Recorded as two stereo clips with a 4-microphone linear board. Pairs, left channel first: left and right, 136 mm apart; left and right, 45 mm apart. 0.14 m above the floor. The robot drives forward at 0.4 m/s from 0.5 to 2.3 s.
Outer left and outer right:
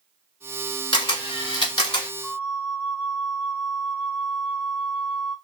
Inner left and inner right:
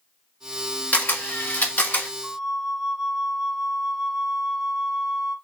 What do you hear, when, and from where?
0.9 s a camera shutter: 35° left (ahead or behind), 1.1 m
2.2 s a flute: 10° right (ahead or behind), 0.6 m; by 5.4 s 5° right (ahead or behind), 0.6 m